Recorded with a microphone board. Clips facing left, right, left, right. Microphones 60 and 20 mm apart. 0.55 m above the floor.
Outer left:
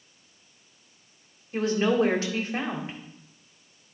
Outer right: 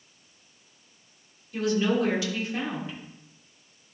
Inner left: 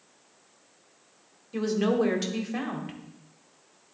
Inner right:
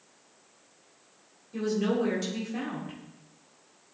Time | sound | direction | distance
1.5 | a woman speaking | 35° left (ahead or behind) | 1.5 m